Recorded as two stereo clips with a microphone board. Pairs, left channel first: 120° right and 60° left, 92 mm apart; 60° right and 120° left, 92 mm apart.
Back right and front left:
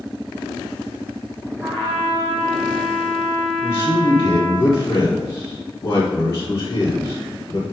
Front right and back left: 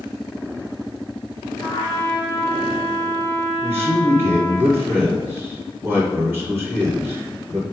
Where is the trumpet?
Straight ahead, 2.5 m.